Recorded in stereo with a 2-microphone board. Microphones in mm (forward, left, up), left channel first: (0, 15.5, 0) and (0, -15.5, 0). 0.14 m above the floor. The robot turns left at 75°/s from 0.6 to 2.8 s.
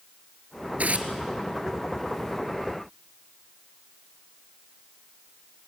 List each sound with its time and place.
0.8 s tearing paper: 60° right (ahead or behind), 1.6 m; by 1.1 s 50° right (ahead or behind), 1.6 m